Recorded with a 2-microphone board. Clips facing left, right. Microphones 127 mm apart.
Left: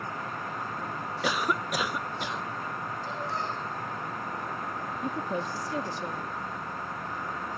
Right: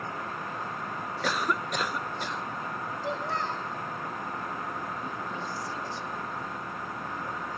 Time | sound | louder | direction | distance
1.2 | a cough | left 1 dB | 5° left (ahead or behind) | 0.6 m
3.0 | a child speaking | right 3 dB | 80° right | 4.5 m
5.0 | a woman speaking | left 4 dB | 70° left (ahead or behind) | 1.4 m